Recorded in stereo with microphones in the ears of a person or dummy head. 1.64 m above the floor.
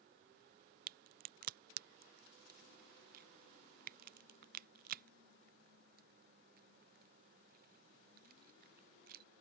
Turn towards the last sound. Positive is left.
turn(degrees=-55)  # may be behind; listen again after turning